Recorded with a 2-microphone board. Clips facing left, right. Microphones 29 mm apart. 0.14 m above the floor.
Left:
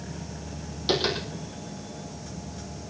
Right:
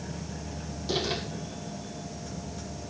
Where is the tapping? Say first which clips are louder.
Left 4 dB; 70° left (ahead or behind), 8 m.